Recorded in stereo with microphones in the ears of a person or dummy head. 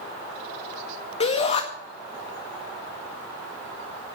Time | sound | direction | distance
1.2 | a shout | 35° left (ahead or behind) | 1.8 m